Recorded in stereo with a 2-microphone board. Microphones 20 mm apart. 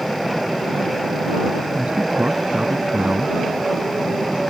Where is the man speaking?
85° right.